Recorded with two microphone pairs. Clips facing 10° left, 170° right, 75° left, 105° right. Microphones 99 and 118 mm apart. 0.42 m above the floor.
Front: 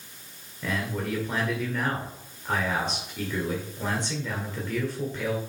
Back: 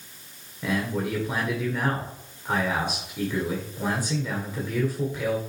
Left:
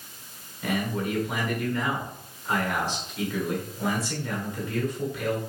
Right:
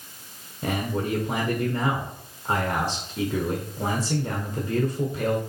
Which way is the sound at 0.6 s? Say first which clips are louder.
Back 3 dB, right 1 dB; 100° right.